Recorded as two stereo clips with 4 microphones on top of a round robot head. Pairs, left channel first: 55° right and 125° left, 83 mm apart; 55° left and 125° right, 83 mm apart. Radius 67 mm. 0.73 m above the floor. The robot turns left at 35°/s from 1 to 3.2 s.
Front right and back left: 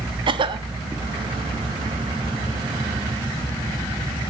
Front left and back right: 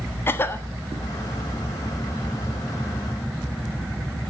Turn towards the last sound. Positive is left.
turn(degrees=45)